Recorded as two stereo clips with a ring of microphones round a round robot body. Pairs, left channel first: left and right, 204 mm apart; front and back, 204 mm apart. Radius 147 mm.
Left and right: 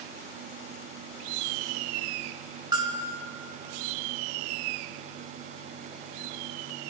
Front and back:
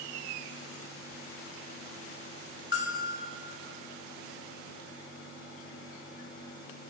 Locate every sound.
2.7 s a bell: 20° right, 1.5 m